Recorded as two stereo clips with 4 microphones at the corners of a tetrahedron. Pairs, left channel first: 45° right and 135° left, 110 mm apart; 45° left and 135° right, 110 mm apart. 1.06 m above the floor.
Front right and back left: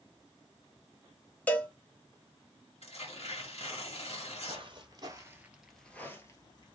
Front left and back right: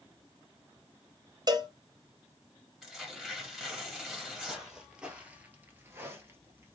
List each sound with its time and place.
1.5 s a cowbell: 110° right, 0.9 m
2.8 s tearing paper: 50° right, 1.9 m
4.5 s footsteps: 140° left, 1.6 m; by 6.8 s 75° right, 1.5 m